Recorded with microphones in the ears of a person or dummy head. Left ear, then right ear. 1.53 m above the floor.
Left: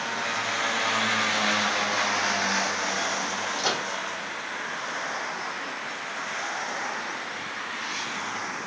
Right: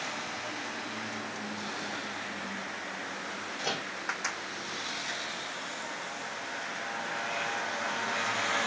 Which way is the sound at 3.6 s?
65° left (ahead or behind).